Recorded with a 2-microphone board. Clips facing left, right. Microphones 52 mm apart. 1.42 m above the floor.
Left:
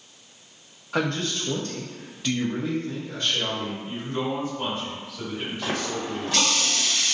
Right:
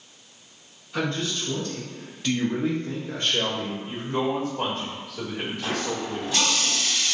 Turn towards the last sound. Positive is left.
turn(degrees=65)  # may be behind; listen again after turning